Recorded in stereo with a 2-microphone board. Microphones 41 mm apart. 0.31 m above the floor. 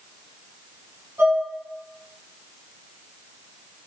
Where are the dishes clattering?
65° right (ahead or behind), 1.6 m.